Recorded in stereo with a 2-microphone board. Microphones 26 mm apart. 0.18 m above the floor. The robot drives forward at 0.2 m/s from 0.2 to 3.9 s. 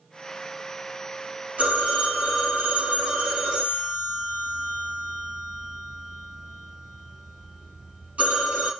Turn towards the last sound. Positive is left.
turn(degrees=-65)  # may be behind; listen again after turning